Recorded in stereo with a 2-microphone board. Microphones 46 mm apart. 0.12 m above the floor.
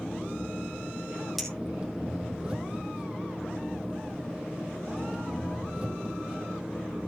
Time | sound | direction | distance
0.0 | an engine running | 20° right (ahead or behind) | 3.5 m
1.4 | a clink | centre (ahead or behind) | 2.5 m